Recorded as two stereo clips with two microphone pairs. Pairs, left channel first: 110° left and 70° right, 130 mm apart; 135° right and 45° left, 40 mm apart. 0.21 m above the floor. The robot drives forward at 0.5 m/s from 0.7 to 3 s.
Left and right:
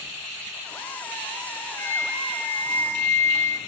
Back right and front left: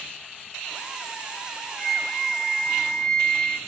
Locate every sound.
1.8 s a flute: 140° left, 1.0 m; by 3.6 s 165° left, 1.4 m